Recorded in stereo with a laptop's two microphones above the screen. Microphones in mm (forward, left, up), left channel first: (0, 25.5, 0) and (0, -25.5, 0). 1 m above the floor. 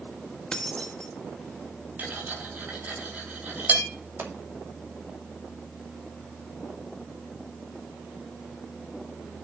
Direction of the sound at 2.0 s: 35° right (ahead or behind).